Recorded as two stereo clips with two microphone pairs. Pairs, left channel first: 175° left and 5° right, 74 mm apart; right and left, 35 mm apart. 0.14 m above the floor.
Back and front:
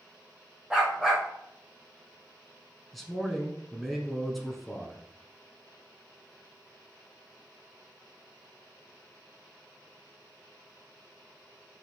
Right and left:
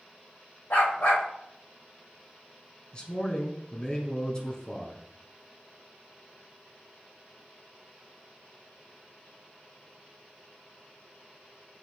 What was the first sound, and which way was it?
A dog barking, 90° right.